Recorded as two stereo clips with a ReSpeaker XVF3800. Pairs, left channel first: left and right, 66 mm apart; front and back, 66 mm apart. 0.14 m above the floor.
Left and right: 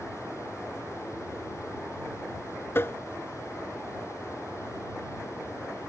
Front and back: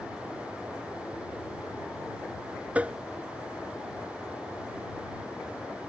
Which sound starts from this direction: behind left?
Tapping, at 2.8 s.